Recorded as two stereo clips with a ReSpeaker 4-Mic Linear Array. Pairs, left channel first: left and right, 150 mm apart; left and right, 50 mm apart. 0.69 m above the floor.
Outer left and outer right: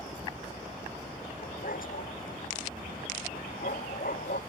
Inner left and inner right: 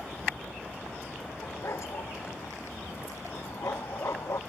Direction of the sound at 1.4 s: 70° left (ahead or behind).